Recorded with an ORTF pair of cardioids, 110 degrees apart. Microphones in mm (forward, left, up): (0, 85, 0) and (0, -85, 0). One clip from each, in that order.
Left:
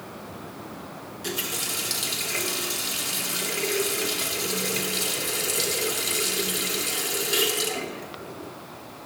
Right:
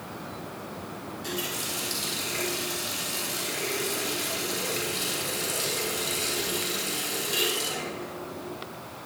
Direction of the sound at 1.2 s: 40° left.